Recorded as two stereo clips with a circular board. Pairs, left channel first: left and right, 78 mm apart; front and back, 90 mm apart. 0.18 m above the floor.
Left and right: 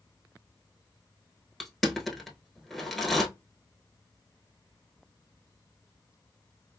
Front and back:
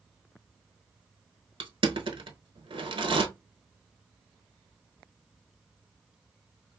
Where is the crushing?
Straight behind, 0.7 m.